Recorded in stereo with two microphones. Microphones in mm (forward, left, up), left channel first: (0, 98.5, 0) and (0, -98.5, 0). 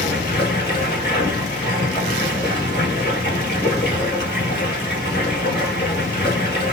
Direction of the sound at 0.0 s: 55° left (ahead or behind).